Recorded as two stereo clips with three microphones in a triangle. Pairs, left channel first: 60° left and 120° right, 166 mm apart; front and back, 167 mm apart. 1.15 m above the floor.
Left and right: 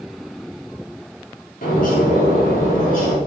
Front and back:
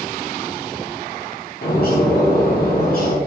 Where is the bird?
25° left, 3 m.